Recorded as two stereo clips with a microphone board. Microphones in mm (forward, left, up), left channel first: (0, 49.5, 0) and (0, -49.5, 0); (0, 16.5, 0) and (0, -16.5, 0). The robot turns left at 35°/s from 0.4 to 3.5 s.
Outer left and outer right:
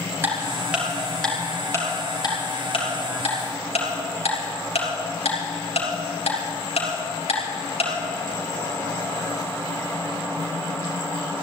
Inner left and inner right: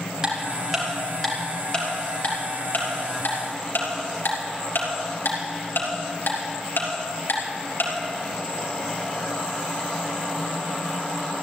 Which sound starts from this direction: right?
Ticking, at 0.2 s.